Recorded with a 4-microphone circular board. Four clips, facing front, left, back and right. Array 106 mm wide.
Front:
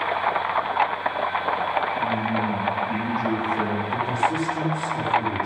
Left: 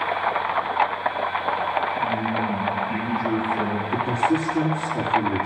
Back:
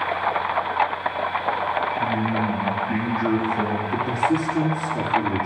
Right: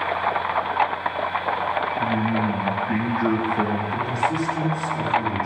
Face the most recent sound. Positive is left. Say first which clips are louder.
# left 2 dB, back 2 dB
turn(degrees=140)